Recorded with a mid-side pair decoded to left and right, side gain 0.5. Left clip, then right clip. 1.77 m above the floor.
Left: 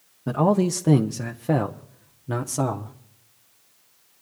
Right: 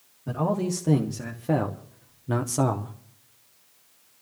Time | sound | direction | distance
0.3 | a man speaking | 55° left | 1.2 m